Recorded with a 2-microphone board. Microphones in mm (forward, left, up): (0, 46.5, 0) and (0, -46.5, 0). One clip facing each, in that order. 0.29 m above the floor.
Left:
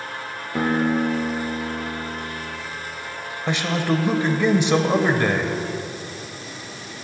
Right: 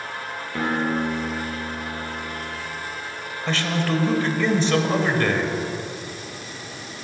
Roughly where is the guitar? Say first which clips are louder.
Left 3 dB; centre.